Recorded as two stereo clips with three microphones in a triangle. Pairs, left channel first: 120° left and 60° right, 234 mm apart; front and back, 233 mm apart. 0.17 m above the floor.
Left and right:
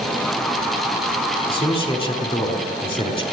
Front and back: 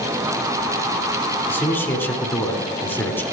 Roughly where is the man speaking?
Left.